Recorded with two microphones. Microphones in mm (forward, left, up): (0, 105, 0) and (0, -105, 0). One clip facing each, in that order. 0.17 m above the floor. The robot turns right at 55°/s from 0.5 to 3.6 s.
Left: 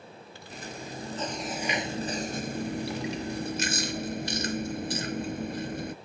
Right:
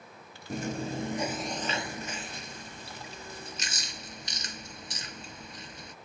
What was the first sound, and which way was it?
Chewing, 50° right.